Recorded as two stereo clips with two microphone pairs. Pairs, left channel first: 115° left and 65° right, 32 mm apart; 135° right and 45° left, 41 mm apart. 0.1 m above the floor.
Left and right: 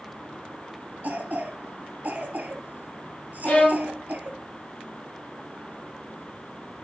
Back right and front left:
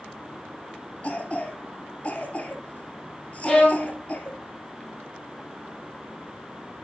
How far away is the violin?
About 2.5 m.